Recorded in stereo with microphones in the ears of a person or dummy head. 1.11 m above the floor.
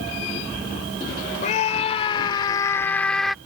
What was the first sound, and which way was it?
A scream, 45° left (ahead or behind).